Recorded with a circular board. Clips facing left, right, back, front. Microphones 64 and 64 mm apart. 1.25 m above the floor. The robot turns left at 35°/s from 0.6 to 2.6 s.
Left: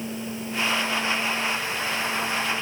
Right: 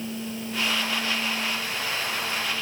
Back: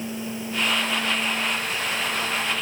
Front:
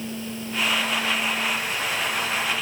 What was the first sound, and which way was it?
Only background noise.